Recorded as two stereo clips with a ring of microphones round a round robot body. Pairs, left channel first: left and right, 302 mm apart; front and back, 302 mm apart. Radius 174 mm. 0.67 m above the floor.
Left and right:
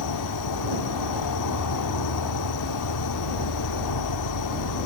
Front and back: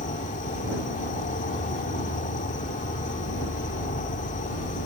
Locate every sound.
0.0 s an insect: 65° left